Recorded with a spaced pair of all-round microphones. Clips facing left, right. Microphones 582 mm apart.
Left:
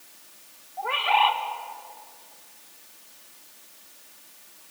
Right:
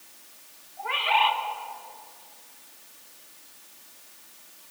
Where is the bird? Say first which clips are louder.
Left 3 dB; 65° left (ahead or behind), 1.7 m.